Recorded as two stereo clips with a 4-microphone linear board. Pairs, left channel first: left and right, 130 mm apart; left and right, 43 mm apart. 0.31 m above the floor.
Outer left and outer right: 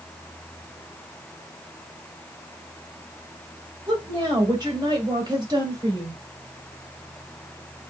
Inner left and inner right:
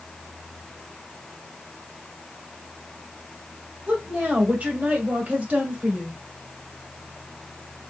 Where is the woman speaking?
35° right (ahead or behind), 1.9 m.